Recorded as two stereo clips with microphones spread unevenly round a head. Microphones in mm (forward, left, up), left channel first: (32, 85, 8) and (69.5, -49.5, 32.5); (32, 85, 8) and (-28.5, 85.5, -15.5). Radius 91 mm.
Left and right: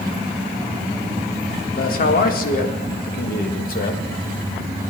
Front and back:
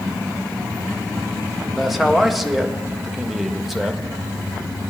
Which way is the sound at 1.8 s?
95° left.